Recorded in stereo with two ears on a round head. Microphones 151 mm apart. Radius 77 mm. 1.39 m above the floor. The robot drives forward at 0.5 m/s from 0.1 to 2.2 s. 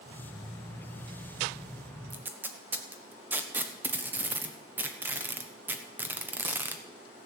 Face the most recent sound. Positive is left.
turn(degrees=-10)  # may be behind; listen again after turning